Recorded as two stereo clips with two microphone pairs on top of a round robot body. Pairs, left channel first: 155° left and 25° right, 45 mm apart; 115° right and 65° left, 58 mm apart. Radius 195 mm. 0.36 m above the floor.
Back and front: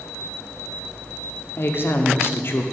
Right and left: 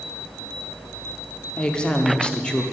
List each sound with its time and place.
1.6 s a woman speaking: straight behind, 1.0 m